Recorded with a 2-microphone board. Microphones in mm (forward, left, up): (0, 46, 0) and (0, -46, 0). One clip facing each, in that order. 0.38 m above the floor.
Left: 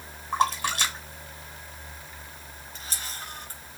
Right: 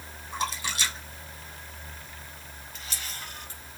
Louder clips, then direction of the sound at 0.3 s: Left 7 dB; 60° left (ahead or behind).